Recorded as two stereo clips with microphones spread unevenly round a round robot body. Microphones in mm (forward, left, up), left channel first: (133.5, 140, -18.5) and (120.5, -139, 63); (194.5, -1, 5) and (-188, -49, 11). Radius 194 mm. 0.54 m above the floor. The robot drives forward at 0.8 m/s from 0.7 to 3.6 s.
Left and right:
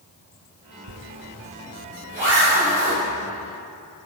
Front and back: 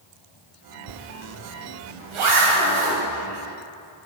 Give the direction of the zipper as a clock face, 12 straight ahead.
4 o'clock.